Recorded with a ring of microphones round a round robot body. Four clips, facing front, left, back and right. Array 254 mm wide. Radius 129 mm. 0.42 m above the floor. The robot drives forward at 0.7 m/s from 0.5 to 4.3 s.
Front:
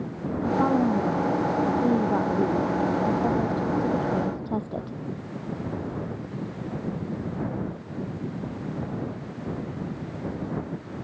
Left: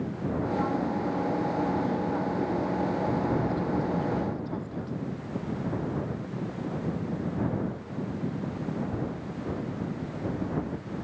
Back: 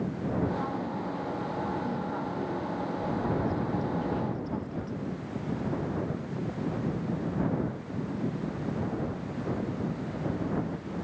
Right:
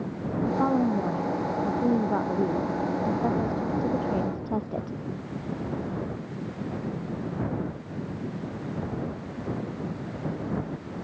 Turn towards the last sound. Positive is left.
turn(degrees=-45)